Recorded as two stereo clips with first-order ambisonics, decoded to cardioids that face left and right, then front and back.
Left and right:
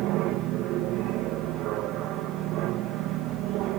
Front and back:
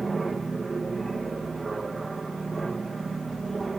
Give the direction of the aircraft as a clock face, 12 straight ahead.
4 o'clock.